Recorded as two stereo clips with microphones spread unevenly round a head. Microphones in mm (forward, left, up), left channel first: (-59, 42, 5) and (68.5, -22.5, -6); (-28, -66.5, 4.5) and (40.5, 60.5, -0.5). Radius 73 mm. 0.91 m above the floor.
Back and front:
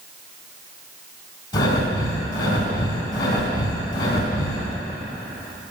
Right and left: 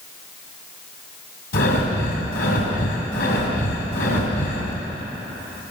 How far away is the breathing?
About 3 m.